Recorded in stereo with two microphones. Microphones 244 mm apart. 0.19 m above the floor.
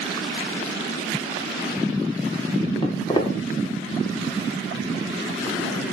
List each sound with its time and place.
2.8 s footsteps: 20° left (ahead or behind), 1.4 m